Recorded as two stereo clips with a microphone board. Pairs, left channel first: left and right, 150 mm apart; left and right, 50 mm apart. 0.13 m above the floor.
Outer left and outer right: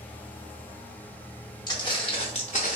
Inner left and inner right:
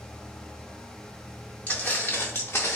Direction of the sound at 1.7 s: 30° left (ahead or behind).